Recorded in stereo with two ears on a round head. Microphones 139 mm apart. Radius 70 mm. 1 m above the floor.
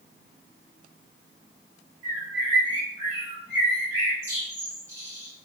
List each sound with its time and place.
2.0 s a bird: 15° right (ahead or behind), 1.0 m